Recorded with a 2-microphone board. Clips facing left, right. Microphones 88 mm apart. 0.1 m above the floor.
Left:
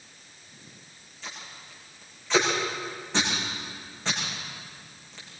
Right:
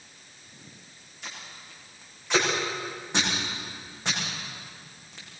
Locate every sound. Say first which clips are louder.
1.2 s tape being pulled: left 1 dB; 15° right (ahead or behind), 6.5 m